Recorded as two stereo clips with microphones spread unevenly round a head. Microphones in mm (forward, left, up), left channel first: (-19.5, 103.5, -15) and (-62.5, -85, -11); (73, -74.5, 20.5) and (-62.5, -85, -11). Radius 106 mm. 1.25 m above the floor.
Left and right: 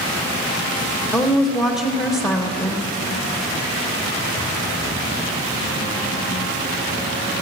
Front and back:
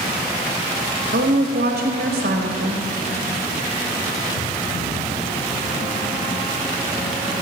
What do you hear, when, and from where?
1.1 s a woman speaking: 145° left, 1.3 m